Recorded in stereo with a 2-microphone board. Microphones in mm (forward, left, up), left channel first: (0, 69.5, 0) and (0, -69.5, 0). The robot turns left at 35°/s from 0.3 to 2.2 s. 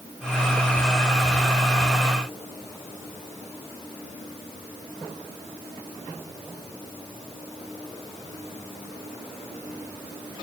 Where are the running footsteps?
No running footsteps in this recording.